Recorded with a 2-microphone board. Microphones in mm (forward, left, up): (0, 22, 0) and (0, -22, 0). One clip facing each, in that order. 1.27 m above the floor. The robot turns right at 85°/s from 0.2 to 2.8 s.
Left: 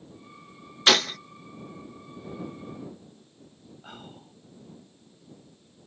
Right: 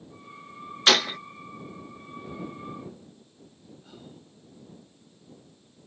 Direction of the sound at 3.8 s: 60° left (ahead or behind).